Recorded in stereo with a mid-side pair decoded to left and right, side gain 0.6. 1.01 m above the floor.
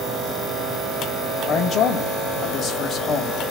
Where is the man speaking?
45° left, 1.0 m.